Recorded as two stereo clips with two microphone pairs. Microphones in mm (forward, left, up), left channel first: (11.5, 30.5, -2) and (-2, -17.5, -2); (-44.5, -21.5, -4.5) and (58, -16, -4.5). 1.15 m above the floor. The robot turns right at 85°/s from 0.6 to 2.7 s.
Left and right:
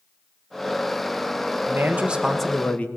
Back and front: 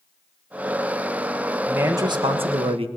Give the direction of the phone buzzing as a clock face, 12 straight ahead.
No phone buzzing in this recording.